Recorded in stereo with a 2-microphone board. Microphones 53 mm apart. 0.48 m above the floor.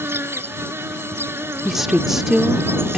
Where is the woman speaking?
5° right (ahead or behind).